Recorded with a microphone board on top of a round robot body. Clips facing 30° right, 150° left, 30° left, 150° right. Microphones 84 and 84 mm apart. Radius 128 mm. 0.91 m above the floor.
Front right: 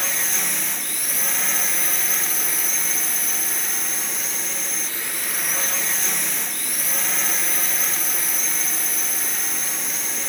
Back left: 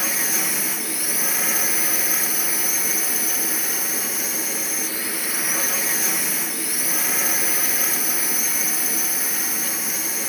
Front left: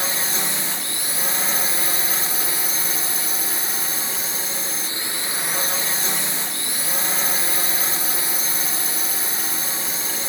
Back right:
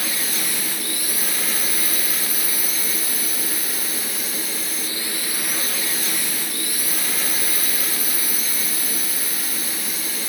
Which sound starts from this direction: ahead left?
A drone, at 0.0 s.